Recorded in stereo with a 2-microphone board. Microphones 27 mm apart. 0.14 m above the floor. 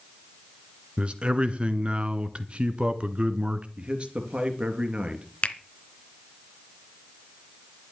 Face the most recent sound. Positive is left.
turn(degrees=45)  # may be behind; listen again after turning